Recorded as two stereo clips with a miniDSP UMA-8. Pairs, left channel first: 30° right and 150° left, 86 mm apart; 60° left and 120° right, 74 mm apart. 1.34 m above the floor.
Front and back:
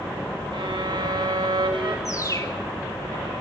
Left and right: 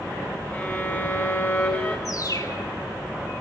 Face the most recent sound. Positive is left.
turn(degrees=20)